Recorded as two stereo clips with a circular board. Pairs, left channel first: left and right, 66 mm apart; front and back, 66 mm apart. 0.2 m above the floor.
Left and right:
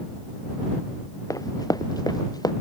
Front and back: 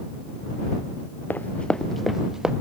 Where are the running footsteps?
60° left; by 2.5 s 100° left.